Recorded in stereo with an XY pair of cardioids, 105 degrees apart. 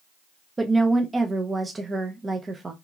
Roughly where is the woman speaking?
Ahead right.